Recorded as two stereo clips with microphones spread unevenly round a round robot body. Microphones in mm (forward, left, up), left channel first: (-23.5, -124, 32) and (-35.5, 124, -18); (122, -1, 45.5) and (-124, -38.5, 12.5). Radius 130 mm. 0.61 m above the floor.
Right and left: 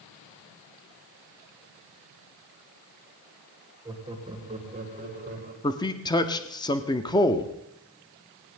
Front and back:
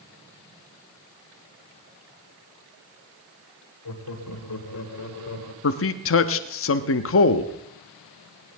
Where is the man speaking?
5° right, 0.8 m.